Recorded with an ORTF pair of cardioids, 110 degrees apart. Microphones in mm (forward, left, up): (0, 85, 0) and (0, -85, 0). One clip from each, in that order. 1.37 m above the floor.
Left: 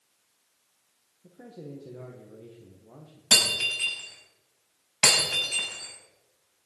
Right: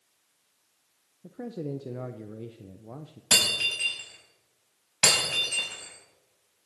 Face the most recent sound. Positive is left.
turn(degrees=0)